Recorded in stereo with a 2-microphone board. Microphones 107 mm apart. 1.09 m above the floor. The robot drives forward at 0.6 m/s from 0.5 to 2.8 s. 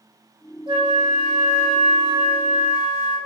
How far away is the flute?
About 0.7 m.